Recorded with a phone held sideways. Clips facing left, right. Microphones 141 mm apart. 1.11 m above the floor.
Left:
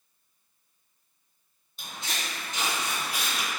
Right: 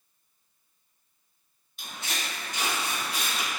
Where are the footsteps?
35° left (ahead or behind), 1.7 m; by 3.5 s 5° right (ahead or behind), 1.1 m.